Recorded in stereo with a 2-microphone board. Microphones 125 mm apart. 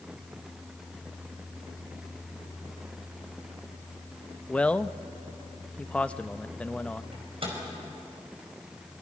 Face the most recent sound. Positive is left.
turn(degrees=-50)  # may be behind; listen again after turning